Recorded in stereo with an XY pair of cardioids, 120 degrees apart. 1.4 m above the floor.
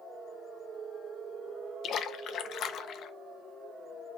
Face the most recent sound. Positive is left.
turn(degrees=55)